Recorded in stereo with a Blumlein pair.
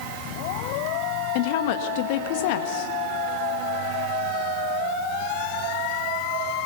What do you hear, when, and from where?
1.4 s a woman speaking: 50° left, 1.6 m